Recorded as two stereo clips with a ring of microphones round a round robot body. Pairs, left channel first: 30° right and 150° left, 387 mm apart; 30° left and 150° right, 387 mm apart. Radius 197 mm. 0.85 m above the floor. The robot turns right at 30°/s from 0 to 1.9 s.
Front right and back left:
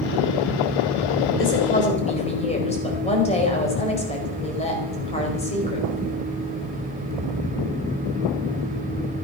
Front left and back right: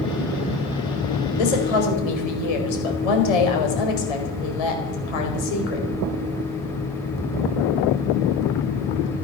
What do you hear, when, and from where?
1.4 s a woman speaking: 30° left, 4.5 m; by 5.9 s 45° left, 4.5 m